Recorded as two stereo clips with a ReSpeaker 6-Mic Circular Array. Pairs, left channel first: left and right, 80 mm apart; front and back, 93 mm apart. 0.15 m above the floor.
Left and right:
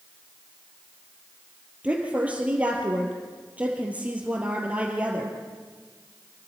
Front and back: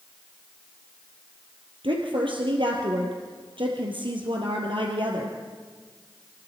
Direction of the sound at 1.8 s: 160° right.